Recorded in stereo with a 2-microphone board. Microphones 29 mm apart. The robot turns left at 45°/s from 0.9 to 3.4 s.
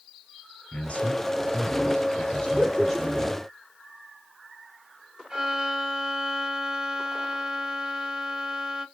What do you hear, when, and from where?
0.7 s a man speaking: 110° left, 2 m; by 3.5 s 5° right, 2 m
2.5 s laughter: 30° left (ahead or behind), 1.5 m
5.3 s a violin: 20° right (ahead or behind), 1.3 m